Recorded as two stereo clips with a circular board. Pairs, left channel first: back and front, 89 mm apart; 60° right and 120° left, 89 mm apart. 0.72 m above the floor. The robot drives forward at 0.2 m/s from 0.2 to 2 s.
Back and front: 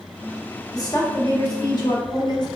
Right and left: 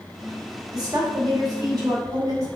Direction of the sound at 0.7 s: 150° left.